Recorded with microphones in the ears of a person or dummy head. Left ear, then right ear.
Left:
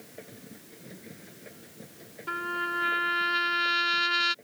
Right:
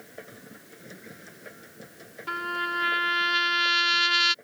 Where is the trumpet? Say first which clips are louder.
Right 2 dB; 25° right (ahead or behind).